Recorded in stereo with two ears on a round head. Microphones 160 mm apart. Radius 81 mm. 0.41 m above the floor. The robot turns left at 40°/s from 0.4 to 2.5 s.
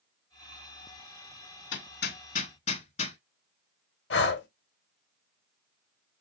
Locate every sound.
1.7 s hammering: 70° left (ahead or behind), 0.8 m; by 3.2 s 35° left (ahead or behind), 0.8 m
4.1 s breathing: 70° left (ahead or behind), 0.8 m